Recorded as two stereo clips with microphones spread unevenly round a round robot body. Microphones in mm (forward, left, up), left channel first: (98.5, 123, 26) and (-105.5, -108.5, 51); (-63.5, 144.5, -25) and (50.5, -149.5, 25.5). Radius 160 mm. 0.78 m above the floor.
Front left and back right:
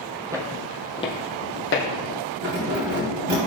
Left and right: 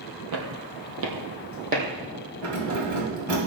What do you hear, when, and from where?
0.3 s footsteps: 55° right, 1.7 m; by 1.8 s 5° right, 2.5 m
2.4 s keys jangling: 80° right, 3.5 m